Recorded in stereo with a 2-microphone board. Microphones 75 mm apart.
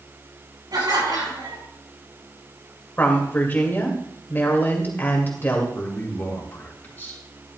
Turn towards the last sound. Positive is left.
turn(degrees=25)  # may be behind; listen again after turning